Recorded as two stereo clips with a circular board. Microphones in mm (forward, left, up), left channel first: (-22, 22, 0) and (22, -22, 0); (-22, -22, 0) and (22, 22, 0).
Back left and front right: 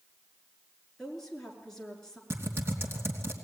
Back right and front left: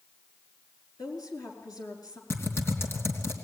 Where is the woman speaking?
145° right, 5 m.